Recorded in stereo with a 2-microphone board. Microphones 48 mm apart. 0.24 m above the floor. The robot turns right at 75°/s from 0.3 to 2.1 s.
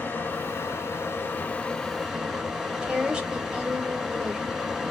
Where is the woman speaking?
15° right (ahead or behind), 1.0 m.